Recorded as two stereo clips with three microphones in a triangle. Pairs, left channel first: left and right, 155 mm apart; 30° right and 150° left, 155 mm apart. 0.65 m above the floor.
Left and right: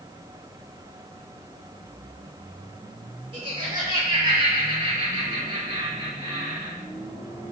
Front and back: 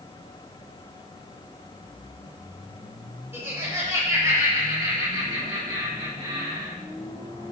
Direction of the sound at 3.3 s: 140° right.